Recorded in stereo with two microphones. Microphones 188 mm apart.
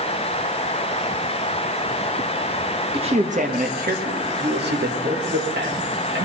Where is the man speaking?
30° right (ahead or behind), 1.4 m; by 6.2 s 70° right (ahead or behind), 4 m.